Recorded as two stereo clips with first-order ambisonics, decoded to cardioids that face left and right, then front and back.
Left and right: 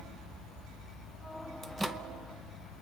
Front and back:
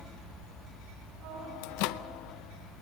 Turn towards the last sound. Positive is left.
turn(degrees=-10)